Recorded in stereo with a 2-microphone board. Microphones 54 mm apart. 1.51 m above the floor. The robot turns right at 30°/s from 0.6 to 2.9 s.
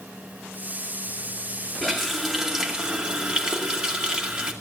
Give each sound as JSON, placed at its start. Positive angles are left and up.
{"t": 1.8, "sound": "a running tap", "azimuth_deg": 170, "distance_m": 2.0}